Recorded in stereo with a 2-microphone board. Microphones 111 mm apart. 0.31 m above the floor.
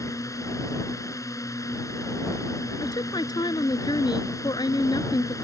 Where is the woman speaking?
40° left (ahead or behind).